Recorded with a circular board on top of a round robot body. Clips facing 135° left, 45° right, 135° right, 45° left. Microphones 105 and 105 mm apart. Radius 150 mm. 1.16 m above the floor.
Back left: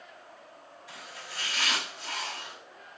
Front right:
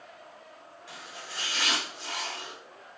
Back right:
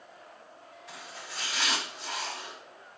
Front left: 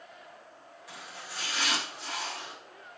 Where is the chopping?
40° right, 2.5 m.